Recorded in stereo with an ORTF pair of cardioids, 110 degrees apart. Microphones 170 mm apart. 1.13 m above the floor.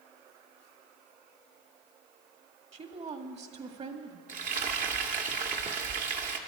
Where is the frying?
50° right, 1.8 m.